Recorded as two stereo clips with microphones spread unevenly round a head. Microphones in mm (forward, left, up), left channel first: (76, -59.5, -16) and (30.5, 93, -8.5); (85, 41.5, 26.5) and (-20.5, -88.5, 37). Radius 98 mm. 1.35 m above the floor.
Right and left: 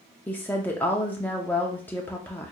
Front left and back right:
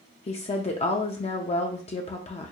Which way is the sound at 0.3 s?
5° left.